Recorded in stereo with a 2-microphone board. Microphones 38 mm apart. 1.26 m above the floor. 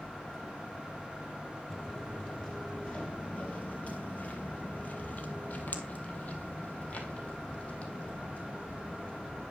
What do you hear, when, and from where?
1.7 s footsteps: 20° left (ahead or behind), 2.0 m; by 9.4 s 30° left (ahead or behind), 3.5 m